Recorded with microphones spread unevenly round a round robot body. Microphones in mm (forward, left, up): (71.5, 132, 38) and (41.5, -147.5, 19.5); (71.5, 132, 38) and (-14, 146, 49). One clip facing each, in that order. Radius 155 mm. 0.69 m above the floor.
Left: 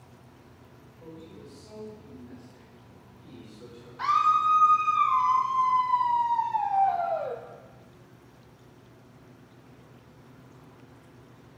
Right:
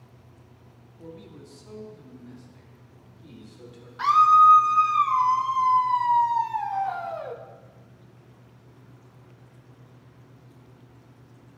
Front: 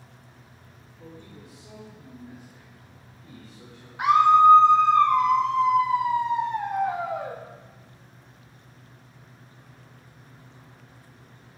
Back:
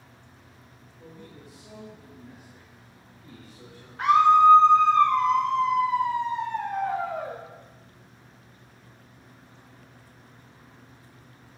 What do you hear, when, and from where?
1.0 s a man speaking: 90° right, 1.3 m; by 3.9 s 95° right, 3 m
4.0 s a scream: 65° right, 0.5 m